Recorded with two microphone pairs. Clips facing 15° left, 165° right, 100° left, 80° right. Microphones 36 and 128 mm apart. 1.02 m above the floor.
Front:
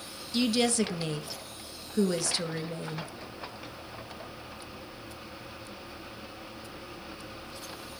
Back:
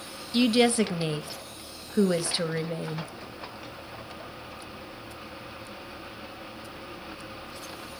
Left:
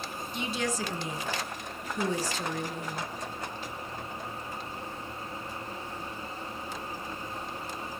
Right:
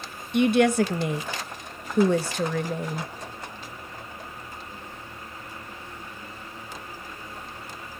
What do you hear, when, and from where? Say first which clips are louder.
0.3 s a woman speaking: back 5 dB, right 14 dB; 95° right, 0.9 m